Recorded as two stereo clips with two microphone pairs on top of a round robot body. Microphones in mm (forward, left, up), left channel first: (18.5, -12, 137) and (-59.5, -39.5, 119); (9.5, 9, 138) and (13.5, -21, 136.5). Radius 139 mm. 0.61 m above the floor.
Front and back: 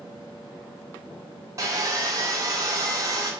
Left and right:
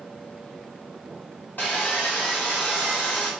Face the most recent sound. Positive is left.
turn(degrees=140)